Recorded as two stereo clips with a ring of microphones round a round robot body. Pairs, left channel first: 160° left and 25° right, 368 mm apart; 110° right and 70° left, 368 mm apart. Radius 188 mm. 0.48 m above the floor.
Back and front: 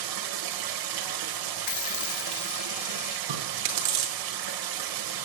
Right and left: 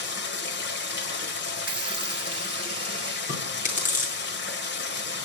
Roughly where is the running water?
Ahead right.